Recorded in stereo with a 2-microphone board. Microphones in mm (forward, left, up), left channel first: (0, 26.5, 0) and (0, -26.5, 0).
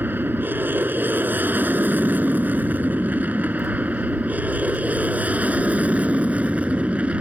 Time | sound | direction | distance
0.0 | an aircraft | 35° right (ahead or behind) | ?